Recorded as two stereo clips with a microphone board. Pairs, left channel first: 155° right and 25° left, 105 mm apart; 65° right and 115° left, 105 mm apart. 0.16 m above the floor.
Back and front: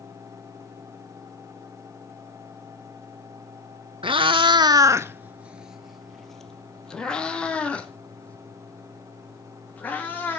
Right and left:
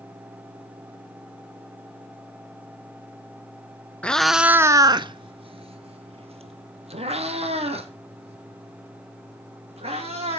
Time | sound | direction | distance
4.0 | a cat meowing | 10° left | 0.6 m